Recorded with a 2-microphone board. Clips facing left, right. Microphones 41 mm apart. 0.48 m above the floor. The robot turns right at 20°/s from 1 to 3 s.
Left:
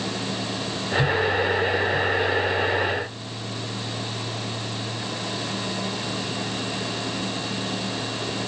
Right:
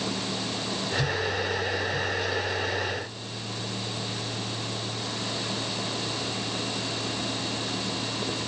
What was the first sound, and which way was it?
Only background noise.